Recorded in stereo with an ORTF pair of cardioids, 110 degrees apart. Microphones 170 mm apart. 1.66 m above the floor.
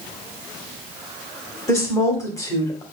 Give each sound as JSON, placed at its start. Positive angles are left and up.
{"t": 1.7, "sound": "a woman speaking", "azimuth_deg": 20, "distance_m": 1.6}